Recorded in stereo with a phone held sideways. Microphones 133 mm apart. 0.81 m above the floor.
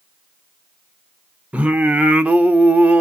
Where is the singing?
10° right (ahead or behind), 0.6 m.